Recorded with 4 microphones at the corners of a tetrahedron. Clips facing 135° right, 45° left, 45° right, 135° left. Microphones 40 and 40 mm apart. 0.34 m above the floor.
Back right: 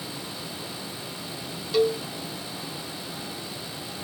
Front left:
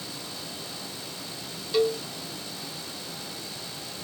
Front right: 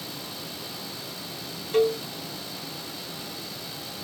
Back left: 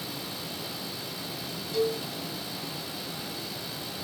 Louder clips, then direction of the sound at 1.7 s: Back right 2 dB, front right 6 dB; 45° right.